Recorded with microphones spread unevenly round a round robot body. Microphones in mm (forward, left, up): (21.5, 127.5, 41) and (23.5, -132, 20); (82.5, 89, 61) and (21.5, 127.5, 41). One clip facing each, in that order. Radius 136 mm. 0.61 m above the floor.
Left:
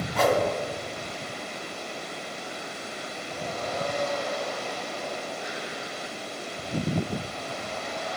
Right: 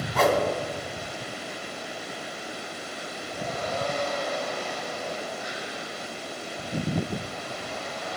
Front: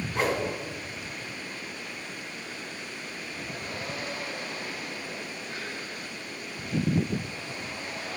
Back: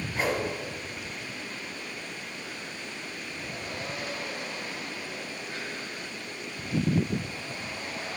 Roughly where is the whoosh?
Right.